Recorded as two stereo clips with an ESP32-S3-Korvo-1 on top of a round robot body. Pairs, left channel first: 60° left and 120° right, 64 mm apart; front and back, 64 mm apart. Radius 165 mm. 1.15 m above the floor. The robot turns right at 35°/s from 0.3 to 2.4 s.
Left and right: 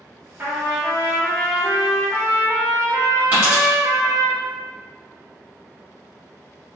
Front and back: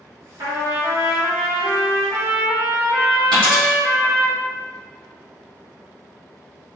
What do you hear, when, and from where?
0.4 s a trumpet: 175° right, 1.2 m; by 4.3 s 105° right, 1.2 m
3.3 s a dropped coin: 170° left, 1.6 m